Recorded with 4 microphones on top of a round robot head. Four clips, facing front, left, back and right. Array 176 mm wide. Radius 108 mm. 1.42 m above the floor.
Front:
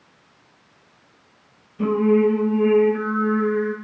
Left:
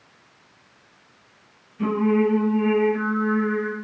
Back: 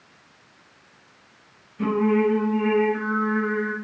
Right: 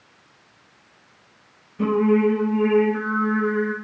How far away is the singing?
About 1.0 m.